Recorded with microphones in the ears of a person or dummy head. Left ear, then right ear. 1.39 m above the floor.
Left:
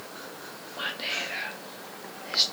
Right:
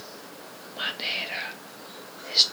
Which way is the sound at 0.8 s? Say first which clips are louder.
Right 2 dB; 15° right (ahead or behind).